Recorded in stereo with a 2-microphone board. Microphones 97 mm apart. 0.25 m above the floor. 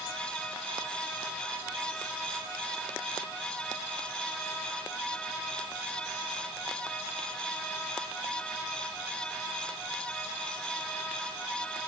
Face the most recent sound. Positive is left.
No sound to turn to.